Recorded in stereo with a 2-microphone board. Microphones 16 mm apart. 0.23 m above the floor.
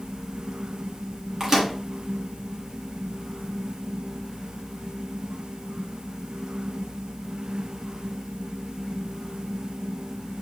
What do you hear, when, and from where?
1.4 s a microwave: 30° right (ahead or behind), 2.5 m